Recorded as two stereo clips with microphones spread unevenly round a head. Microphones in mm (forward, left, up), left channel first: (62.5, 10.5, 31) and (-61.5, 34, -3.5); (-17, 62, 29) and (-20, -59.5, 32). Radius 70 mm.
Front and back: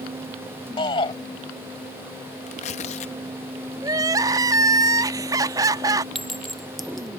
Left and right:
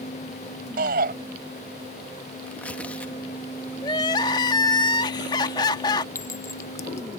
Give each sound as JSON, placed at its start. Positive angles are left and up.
{"t": 0.8, "sound": "a shout", "azimuth_deg": -70}
{"t": 2.5, "sound": "tearing paper", "azimuth_deg": 10}
{"t": 3.8, "sound": "crying", "azimuth_deg": 105}
{"t": 6.2, "sound": "a clink", "azimuth_deg": 40}